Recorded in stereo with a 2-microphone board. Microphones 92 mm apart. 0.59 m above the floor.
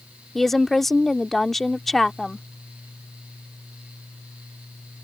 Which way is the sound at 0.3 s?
Centre (ahead or behind).